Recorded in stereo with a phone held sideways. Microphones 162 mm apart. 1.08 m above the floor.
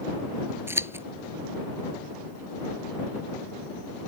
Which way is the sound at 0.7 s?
15° right (ahead or behind).